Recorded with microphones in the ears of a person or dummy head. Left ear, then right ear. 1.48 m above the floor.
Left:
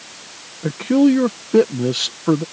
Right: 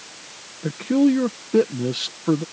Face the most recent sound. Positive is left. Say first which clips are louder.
# left 4 dB
turn(degrees=15)  # may be behind; listen again after turning